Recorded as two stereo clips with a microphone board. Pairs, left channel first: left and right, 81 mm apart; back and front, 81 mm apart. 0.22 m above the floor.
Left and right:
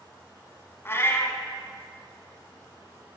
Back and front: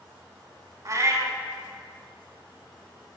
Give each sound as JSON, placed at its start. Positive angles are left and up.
{"t": 0.8, "sound": "a cat meowing", "azimuth_deg": 40, "distance_m": 0.8}